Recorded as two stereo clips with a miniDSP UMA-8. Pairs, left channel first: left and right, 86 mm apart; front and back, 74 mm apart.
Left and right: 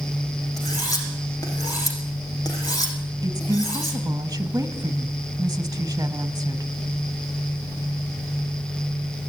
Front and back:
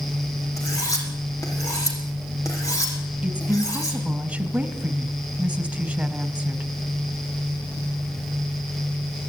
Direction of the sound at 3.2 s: 115° right.